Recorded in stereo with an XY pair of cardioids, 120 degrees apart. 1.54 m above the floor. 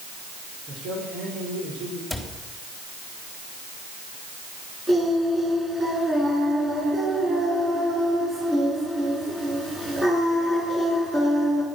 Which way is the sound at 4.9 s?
25° right.